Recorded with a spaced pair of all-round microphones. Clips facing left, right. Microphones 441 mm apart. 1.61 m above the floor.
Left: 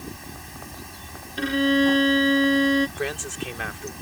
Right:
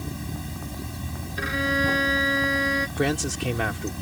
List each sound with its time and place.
0.0 s running water: 55° right (ahead or behind)
1.4 s a violin: 50° left (ahead or behind)
3.0 s a man speaking: 90° right